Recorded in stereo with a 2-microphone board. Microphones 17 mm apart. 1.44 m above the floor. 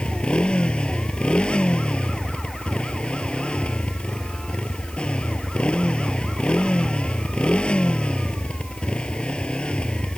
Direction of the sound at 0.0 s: 85° left.